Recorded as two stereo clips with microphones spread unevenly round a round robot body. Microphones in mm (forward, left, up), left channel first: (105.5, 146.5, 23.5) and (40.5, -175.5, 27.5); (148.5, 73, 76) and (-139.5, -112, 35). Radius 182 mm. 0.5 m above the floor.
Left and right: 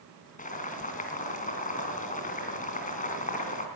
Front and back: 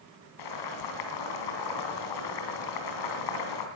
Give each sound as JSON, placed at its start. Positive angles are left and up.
{"t": 0.4, "sound": "boiling", "azimuth_deg": 10, "distance_m": 3.0}